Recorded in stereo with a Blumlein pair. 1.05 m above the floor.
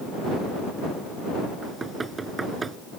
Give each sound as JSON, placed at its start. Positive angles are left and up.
{"t": 1.6, "sound": "knocking", "azimuth_deg": -15}